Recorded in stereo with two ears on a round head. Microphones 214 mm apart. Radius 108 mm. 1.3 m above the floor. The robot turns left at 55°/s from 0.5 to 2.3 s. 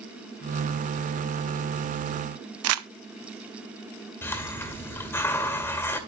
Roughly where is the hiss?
Centre.